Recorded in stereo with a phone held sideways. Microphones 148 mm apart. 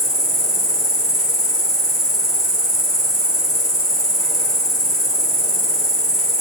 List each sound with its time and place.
0.0 s an insect: 25° left (ahead or behind), 2 m